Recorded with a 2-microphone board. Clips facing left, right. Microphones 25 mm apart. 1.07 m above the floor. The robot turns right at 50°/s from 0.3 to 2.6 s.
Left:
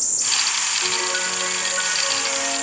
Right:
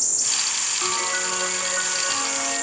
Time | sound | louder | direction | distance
0.8 | a piano | left 2 dB | 135° right | 9 m